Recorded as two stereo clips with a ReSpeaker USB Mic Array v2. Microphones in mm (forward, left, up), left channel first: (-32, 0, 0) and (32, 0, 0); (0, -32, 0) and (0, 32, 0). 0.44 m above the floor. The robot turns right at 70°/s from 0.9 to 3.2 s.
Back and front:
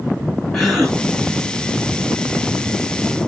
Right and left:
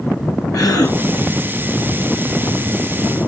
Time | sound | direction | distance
0.5 | a gasp | 95° right | 4 m